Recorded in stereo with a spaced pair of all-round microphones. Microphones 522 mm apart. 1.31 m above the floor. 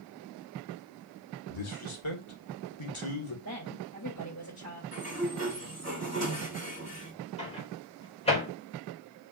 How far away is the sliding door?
About 4.5 m.